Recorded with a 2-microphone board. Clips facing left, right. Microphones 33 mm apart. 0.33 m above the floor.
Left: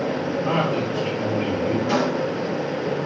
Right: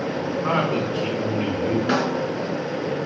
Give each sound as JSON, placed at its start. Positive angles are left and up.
{"t": 0.4, "sound": "a man speaking", "side_deg": -70, "distance_m": 3.5}
{"t": 1.9, "sound": "a snare drum", "side_deg": -65, "distance_m": 4.5}